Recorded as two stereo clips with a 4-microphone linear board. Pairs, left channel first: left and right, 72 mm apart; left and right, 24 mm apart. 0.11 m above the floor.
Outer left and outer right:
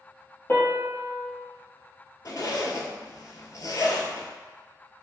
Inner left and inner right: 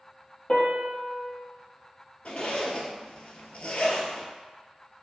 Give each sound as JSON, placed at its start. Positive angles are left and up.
{"t": 0.5, "sound": "a piano", "side_deg": 30, "distance_m": 0.7}
{"t": 2.2, "sound": "a zipper", "side_deg": 60, "distance_m": 0.6}